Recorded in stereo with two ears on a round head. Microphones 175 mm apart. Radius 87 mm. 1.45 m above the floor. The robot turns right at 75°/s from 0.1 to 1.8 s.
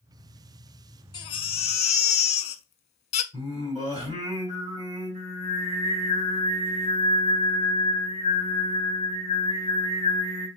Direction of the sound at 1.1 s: 40° left.